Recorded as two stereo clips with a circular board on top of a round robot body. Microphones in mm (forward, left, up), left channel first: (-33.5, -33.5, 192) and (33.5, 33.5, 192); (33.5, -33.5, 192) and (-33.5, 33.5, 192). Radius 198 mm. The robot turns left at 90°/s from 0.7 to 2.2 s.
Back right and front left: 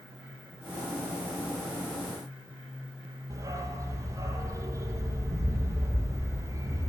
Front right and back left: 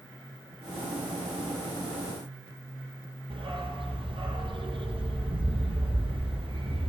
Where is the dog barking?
100° left, 5.5 m.